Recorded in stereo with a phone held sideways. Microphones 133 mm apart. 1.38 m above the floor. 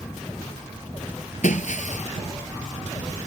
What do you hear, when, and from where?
1.4 s breaking glass: 65° left (ahead or behind)